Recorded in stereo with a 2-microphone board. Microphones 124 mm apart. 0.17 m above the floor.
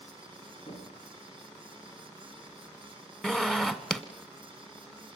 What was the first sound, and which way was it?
Knocking, 60° left (ahead or behind).